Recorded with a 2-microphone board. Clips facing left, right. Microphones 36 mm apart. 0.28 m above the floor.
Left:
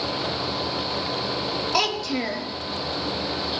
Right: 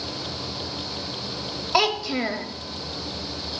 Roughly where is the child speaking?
Centre.